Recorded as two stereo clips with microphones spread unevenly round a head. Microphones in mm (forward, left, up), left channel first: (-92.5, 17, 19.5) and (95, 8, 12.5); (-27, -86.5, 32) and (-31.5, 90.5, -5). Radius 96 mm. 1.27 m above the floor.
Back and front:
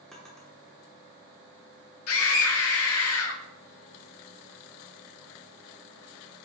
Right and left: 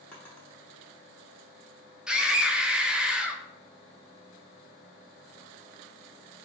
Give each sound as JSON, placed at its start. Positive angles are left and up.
{"t": 0.1, "sound": "a drawer", "azimuth_deg": -105, "distance_m": 0.8}
{"t": 2.1, "sound": "a scream", "azimuth_deg": 175, "distance_m": 0.7}